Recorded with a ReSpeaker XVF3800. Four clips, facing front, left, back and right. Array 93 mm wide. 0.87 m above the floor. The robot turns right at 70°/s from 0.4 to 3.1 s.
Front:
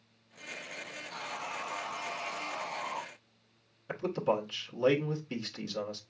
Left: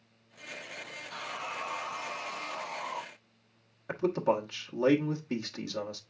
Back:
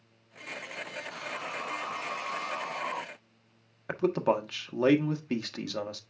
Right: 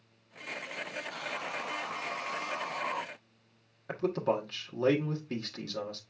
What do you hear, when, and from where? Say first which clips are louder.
1.1 s sawing: left 3 dB, front 1 dB; 95° left, 4 m; by 3.0 s 130° right, 4 m
3.9 s a man speaking: left 2 dB, back 4 dB; 170° left, 1.2 m